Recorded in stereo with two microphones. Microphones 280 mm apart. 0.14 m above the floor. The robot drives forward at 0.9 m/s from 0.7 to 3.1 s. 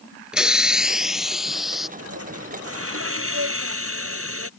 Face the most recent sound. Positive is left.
turn(degrees=-50)  # may be behind; listen again after turning